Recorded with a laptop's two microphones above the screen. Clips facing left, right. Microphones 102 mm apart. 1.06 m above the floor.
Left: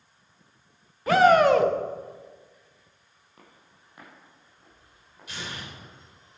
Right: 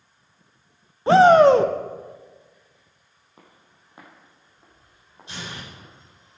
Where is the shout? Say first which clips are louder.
Right 5 dB; 25° right (ahead or behind), 0.6 m.